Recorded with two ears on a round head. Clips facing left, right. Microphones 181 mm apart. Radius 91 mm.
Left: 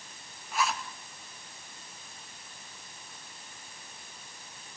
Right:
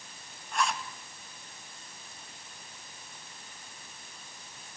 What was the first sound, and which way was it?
A zipper, 5° left (ahead or behind).